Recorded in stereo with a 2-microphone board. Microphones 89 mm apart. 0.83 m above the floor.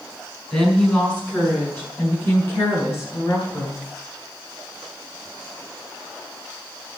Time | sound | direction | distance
0.5 | a woman speaking | 10° left (ahead or behind) | 7.5 m